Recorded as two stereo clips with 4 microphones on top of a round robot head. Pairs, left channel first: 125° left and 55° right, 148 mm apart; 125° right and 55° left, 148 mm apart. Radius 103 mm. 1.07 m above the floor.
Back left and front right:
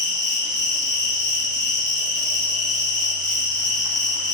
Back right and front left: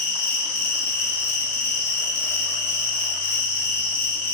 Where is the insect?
125° right, 0.9 m.